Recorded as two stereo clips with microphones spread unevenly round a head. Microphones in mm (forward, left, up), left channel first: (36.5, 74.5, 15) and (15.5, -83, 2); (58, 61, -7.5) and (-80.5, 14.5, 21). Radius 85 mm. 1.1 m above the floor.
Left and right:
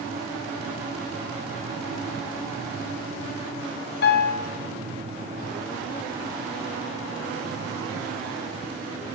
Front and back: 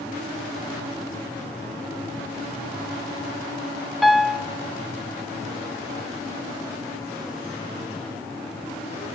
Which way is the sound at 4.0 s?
105° left.